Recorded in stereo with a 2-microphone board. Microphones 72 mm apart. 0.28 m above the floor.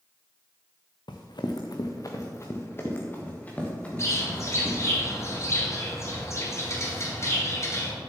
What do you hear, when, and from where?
1.1 s running footsteps: 80° left, 1.4 m; by 5.0 s 10° left (ahead or behind), 4 m
4.0 s a bird: 40° left (ahead or behind), 2 m